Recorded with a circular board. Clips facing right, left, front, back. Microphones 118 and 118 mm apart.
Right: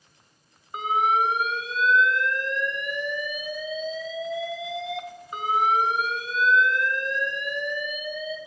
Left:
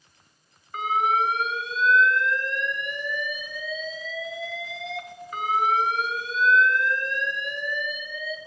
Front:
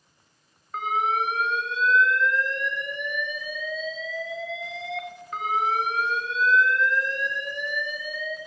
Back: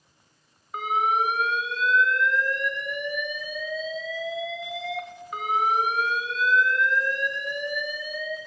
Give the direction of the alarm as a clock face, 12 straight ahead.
4 o'clock.